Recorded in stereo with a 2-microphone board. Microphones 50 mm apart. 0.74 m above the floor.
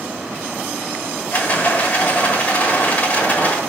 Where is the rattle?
35° left (ahead or behind), 1.3 m.